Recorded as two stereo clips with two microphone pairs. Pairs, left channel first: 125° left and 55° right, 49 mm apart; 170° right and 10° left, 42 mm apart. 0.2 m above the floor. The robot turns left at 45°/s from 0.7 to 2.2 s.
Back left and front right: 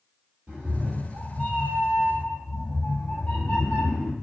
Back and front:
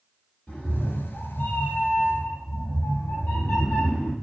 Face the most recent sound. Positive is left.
turn(degrees=180)